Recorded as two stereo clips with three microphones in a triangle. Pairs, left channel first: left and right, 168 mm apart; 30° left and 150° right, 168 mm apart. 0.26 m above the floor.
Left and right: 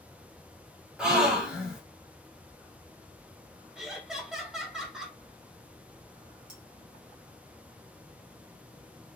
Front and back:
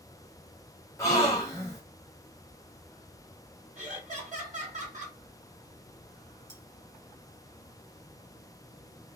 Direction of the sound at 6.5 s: 115° right.